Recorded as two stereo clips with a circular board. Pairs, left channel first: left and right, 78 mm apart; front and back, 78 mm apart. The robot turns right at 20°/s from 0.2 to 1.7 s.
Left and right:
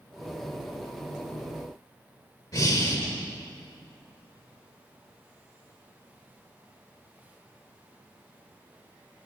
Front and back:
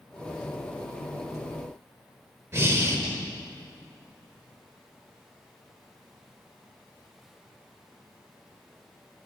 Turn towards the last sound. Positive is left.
turn(degrees=130)